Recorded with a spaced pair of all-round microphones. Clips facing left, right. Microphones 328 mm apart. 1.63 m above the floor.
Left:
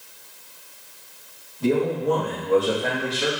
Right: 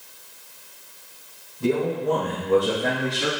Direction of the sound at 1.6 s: 20° right (ahead or behind).